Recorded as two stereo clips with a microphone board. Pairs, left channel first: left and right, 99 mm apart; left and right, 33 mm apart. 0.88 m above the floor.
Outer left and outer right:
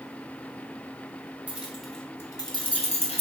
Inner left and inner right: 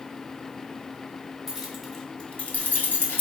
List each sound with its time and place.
1.5 s keys jangling: 15° right (ahead or behind), 0.7 m; by 3.2 s 80° left, 0.7 m